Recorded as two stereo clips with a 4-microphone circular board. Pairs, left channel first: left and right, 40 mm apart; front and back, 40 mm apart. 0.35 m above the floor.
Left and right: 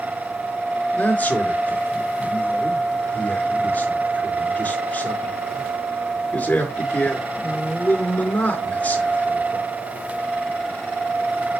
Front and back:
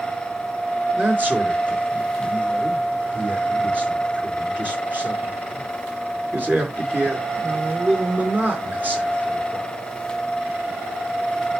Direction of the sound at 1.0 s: 135° left.